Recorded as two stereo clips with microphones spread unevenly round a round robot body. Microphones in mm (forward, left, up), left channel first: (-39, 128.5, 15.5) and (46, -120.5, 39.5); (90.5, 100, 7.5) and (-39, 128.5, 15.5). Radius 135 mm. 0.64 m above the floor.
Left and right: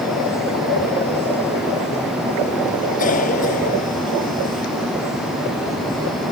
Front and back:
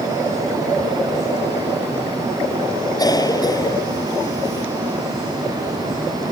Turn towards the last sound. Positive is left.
turn(degrees=50)